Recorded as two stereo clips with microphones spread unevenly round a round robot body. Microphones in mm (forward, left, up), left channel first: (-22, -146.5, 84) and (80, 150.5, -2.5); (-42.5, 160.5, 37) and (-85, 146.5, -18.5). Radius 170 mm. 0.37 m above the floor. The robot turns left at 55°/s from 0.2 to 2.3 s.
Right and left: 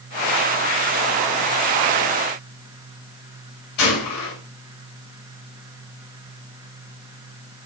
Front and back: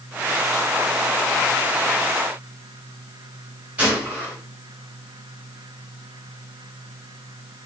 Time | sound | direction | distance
3.8 | a gunshot | 140° right | 4.5 m